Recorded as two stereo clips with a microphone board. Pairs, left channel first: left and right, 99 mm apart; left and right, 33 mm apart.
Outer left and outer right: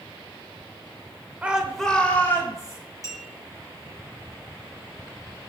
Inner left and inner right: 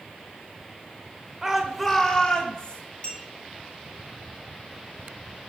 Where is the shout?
15° right (ahead or behind), 0.9 m; by 2.8 s 35° left (ahead or behind), 1.6 m.